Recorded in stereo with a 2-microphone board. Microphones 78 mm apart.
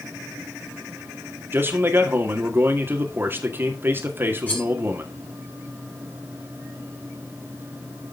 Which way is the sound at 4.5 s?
20° left (ahead or behind).